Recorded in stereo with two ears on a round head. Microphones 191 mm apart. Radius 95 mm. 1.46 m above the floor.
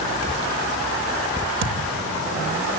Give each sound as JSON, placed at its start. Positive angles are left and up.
{"t": 1.6, "sound": "a thud", "side_deg": -60, "distance_m": 3.0}